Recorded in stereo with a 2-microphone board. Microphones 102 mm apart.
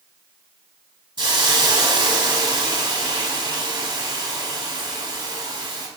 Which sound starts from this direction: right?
A hiss, at 1.2 s.